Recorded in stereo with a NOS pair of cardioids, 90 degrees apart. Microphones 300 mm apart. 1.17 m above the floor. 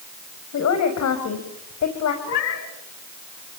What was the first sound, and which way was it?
A woman speaking, 65° left.